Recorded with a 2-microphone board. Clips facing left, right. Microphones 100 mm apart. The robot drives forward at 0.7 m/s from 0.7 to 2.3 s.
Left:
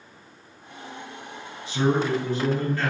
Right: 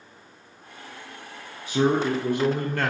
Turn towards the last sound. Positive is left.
turn(degrees=-55)  # may be behind; listen again after turning